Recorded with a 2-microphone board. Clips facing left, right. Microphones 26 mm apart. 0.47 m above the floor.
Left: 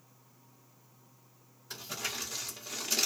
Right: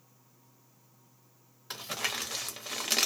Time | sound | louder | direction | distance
1.7 | crumpling | right 4 dB | 75° right (ahead or behind) | 0.7 m